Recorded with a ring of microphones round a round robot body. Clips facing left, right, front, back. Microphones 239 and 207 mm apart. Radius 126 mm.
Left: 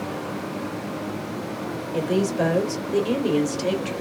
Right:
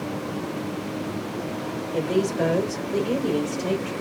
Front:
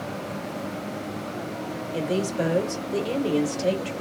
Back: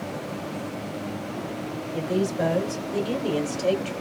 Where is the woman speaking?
5° left, 1.6 m; by 3.9 s 75° left, 1.7 m.